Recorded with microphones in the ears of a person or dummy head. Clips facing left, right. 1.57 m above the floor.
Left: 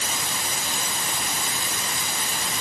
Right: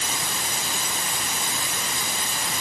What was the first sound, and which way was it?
Only background noise.